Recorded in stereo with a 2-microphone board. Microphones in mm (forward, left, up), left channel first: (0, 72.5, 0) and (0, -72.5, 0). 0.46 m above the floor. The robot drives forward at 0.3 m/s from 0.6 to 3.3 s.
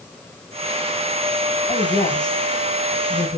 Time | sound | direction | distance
1.7 | a woman speaking | 25° left (ahead or behind) | 3.5 m